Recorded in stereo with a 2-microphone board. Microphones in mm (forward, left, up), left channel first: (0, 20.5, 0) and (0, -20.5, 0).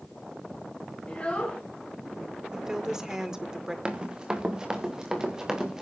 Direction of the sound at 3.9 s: 25° right (ahead or behind).